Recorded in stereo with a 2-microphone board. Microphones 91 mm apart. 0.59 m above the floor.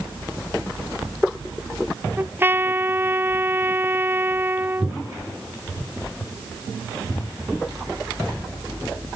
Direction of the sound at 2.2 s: 25° right (ahead or behind).